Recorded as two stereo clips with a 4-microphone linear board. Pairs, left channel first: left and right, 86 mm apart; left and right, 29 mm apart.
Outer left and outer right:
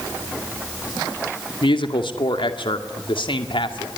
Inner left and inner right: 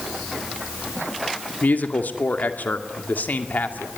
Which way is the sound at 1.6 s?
75° left (ahead or behind).